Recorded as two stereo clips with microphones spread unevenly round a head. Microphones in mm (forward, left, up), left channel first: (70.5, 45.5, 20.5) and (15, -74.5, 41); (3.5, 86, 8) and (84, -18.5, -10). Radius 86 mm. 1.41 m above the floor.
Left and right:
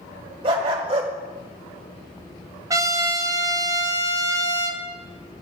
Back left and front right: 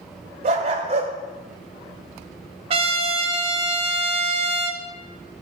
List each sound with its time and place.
0.4 s a dog barking: 95° right, 1.5 m
2.7 s a trumpet: 85° right, 0.8 m